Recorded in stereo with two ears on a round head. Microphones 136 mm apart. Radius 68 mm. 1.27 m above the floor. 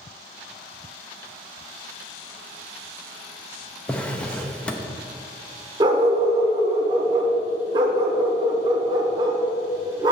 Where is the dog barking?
30° right (ahead or behind), 1.1 m.